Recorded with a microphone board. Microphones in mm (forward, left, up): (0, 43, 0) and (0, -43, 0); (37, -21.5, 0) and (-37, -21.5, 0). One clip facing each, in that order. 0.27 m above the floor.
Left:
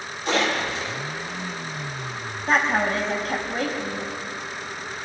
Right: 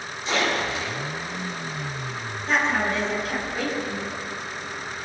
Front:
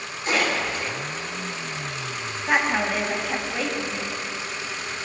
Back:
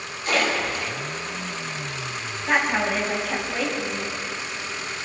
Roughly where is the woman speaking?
Left.